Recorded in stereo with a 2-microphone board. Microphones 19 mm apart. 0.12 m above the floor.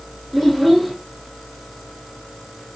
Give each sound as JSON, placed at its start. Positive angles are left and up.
{"t": 0.3, "sound": "a child speaking", "side_deg": 0, "distance_m": 4.0}